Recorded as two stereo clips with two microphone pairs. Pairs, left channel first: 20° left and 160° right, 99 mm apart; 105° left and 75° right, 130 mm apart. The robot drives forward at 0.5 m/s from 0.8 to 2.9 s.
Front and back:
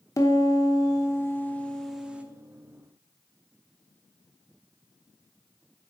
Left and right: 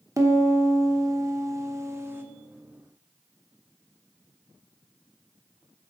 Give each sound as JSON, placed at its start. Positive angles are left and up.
{"t": 0.2, "sound": "a piano", "azimuth_deg": -20, "distance_m": 1.0}